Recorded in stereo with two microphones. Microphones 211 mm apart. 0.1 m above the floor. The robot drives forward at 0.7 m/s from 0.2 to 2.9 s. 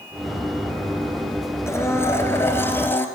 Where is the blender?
15° left (ahead or behind), 2.0 m; by 3.1 s 10° left (ahead or behind), 2.5 m.